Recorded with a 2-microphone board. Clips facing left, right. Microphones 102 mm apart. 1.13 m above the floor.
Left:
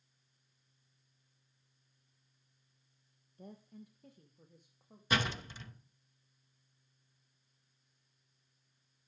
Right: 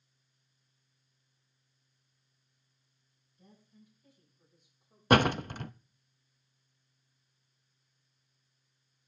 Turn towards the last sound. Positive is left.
turn(degrees=-60)  # may be behind; listen again after turning